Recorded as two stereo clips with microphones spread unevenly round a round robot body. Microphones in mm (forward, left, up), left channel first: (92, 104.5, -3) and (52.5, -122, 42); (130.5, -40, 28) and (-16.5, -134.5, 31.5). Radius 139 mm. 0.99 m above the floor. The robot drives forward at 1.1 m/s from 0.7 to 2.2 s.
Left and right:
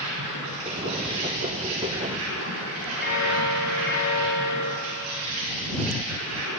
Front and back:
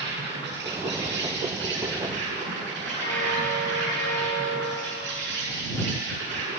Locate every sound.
0.0 s an insect: 130° right, 6.5 m; by 6.6 s 140° right, 7.5 m
3.0 s a bell: 30° left, 6.5 m